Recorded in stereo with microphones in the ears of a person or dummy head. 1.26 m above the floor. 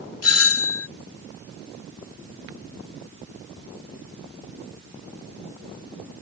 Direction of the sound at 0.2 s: 70° left (ahead or behind).